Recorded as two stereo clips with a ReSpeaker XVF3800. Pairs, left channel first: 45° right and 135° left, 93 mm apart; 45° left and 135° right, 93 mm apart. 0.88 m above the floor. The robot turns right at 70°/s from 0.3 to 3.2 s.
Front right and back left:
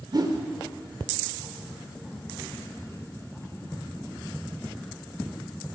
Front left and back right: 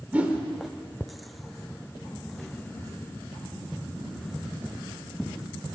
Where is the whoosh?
155° left, 0.7 m; by 0.4 s 165° left, 0.7 m.